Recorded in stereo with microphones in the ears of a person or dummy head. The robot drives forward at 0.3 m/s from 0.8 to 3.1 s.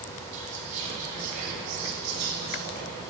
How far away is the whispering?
About 0.8 m.